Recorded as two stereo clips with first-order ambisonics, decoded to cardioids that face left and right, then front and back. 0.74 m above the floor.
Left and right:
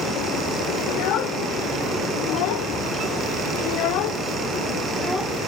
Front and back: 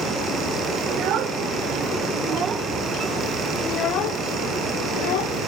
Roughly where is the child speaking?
Behind left.